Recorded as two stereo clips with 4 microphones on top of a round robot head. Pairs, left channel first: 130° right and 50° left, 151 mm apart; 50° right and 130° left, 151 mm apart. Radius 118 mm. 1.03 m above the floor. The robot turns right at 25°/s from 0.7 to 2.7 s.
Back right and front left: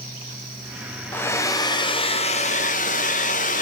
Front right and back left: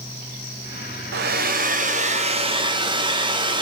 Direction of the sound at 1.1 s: 150° left.